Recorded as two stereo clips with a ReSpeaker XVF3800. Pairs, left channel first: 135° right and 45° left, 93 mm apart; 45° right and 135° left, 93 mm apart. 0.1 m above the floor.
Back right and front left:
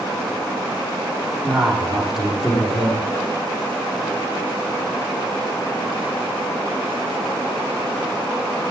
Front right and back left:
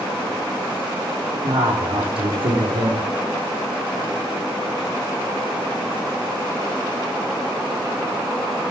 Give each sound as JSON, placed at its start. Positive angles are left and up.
{"t": 1.4, "sound": "a man speaking", "azimuth_deg": 135, "distance_m": 4.0}